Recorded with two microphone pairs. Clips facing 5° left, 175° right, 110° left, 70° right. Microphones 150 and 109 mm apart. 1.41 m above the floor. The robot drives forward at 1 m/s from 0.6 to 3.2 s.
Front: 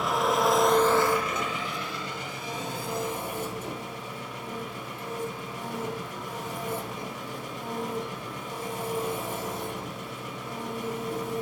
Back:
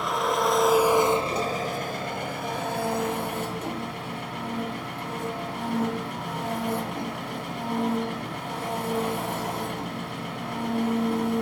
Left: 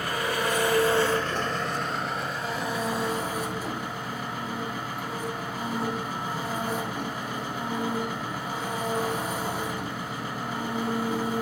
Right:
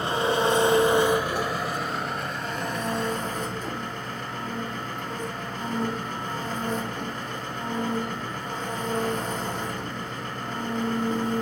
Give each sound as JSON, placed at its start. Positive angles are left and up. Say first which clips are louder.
{"t": 0.0, "sound": "an engine running", "louder": "even, right 5 dB", "azimuth_deg": -85, "distance_m": 1.2}